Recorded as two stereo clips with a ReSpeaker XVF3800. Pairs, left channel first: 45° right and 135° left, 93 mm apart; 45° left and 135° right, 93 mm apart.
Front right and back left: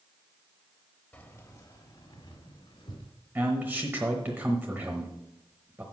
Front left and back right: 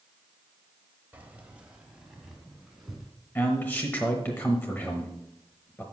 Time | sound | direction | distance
1.1 | keys jangling | 90° right | 1.0 m
3.4 | a man speaking | 90° left | 1.0 m